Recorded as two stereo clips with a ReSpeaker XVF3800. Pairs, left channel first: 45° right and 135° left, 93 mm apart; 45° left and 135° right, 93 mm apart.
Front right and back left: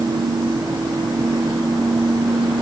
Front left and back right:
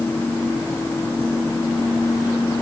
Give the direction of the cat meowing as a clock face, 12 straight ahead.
No cat meowing in this recording.